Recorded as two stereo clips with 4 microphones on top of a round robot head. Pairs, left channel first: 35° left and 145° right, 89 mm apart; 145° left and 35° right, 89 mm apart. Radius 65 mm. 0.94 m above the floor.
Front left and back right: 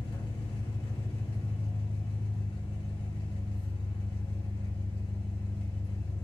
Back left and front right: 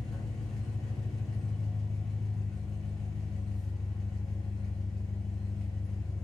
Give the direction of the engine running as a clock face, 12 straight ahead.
10 o'clock.